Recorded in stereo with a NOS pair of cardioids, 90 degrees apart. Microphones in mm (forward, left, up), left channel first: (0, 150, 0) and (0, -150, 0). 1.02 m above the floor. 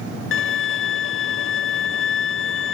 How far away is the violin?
About 0.6 m.